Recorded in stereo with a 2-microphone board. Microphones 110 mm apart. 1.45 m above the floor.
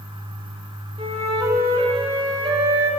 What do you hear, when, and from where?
1.0 s a flute: 70° right (ahead or behind), 3 m